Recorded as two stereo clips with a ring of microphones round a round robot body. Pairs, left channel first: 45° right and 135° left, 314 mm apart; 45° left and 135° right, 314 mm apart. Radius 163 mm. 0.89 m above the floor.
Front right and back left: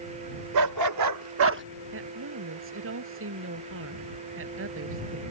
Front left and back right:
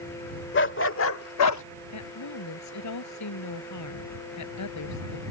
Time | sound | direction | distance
0.5 | a dog barking | 100° left | ?
1.9 | a woman speaking | 85° left | ?